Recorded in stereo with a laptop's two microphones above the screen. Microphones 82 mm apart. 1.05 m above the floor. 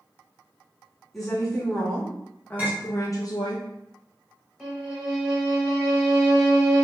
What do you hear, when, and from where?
1.1 s a woman speaking: 5° left (ahead or behind), 1.5 m; by 3.6 s 65° left (ahead or behind), 0.5 m
2.6 s a clink: 20° right (ahead or behind), 1.5 m
4.6 s a violin: 5° right (ahead or behind), 1.4 m